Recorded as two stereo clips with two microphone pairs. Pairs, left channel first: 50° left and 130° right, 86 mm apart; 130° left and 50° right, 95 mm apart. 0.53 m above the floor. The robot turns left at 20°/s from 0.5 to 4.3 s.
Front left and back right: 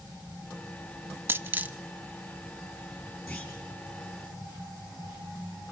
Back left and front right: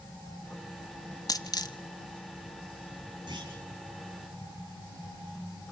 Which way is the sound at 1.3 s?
175° left.